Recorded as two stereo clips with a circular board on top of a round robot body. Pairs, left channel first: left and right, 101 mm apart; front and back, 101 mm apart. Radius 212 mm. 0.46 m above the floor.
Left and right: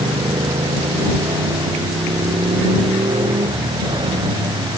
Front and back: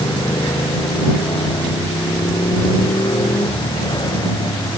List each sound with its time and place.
0.0 s a motorcycle: 45° right